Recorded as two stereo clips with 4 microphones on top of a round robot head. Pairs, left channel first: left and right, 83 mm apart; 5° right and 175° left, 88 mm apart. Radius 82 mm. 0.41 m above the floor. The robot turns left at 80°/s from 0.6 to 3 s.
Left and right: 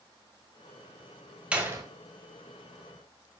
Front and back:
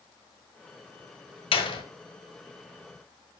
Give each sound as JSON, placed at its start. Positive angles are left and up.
{"t": 1.5, "sound": "a door slam", "azimuth_deg": -15, "distance_m": 1.6}